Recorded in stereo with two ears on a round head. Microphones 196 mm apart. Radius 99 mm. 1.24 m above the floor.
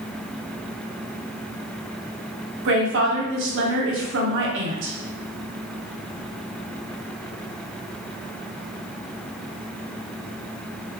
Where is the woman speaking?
60° right (ahead or behind), 0.8 m.